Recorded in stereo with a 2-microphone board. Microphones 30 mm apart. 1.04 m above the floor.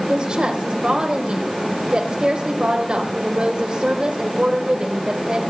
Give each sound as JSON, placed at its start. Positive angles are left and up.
{"t": 0.1, "sound": "a woman speaking", "side_deg": -35, "distance_m": 3.5}